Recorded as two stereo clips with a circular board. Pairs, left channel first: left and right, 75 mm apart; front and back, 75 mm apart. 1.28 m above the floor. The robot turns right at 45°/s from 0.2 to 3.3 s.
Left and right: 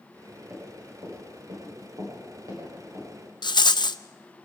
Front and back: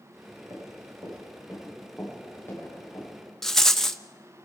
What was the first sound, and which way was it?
Running footsteps, 150° right.